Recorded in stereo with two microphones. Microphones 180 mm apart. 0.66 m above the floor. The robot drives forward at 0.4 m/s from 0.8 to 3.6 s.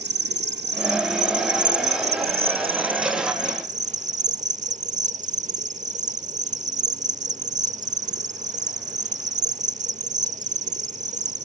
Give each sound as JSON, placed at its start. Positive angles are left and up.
{"t": 0.0, "sound": "an insect", "side_deg": -70}